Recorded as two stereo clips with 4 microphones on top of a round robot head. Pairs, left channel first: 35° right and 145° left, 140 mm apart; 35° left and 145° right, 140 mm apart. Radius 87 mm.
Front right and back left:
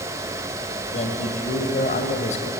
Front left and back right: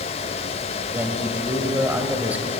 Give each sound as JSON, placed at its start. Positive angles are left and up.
{"t": 0.9, "sound": "a man speaking", "azimuth_deg": -70, "distance_m": 2.5}